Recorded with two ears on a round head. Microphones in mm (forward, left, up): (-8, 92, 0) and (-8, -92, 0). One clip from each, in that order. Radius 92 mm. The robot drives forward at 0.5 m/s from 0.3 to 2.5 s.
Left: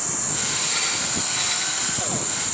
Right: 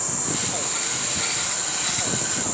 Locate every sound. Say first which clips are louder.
0.0 s an insect: even; 45° left (ahead or behind), 3.5 m; by 2.5 s 35° left (ahead or behind), 4 m